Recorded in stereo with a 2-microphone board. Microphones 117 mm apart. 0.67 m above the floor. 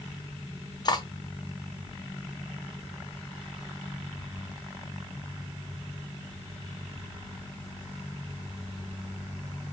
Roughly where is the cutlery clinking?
Left.